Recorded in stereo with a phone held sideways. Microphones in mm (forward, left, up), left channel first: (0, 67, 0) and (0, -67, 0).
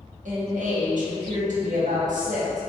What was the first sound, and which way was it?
A woman speaking, 70° right (ahead or behind).